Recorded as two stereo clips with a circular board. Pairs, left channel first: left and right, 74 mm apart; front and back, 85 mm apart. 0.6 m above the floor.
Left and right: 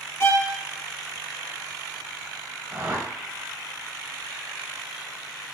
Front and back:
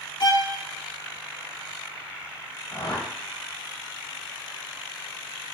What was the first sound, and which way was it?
A violin, 35° left.